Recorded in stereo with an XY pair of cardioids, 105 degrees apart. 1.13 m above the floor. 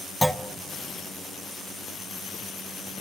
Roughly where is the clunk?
Ahead.